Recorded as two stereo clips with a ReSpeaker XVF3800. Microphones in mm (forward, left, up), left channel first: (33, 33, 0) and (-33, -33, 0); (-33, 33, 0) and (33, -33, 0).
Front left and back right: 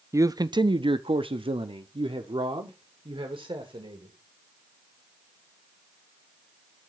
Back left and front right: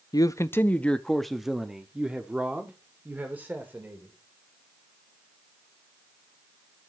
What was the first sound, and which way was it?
A man speaking, 175° left.